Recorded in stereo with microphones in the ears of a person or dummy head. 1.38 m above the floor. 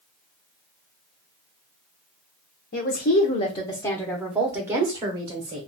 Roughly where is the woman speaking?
Left.